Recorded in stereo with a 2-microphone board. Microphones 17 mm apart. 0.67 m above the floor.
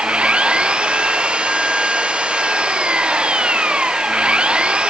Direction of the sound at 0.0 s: 90° right.